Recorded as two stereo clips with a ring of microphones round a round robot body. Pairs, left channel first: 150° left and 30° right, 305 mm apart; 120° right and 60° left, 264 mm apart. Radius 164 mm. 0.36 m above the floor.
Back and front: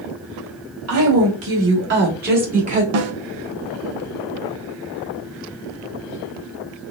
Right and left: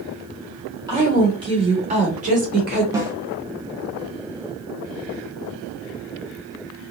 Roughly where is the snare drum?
Ahead.